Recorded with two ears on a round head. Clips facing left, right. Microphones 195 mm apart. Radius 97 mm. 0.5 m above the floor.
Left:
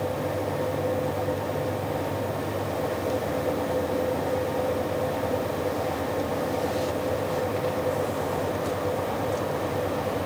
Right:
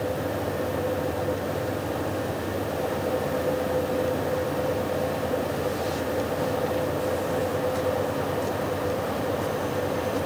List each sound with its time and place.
Only background noise.